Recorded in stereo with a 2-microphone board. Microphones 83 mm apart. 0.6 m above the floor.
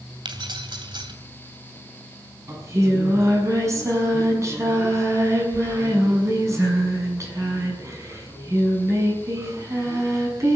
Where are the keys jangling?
65° right (ahead or behind), 2.5 m.